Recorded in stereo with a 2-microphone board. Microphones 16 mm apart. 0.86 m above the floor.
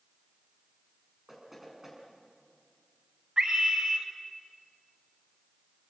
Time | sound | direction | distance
1.3 | knocking | 15° right (ahead or behind) | 7.5 m
3.4 | a scream | 75° right (ahead or behind) | 4 m